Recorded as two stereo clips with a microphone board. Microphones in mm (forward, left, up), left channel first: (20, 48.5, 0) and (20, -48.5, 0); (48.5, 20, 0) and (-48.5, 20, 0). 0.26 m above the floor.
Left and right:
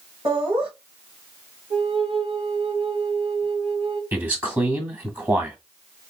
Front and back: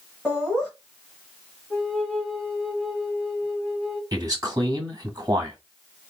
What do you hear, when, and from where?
0.2 s laughter: 85° right, 2.5 m
1.7 s a flute: 80° right, 1.8 m
4.1 s a man speaking: 150° right, 1.5 m